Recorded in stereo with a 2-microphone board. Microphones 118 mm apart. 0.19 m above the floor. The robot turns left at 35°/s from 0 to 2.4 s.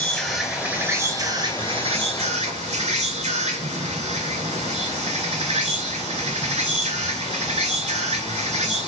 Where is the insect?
10° left, 0.8 m; by 8.9 s 75° right, 0.8 m.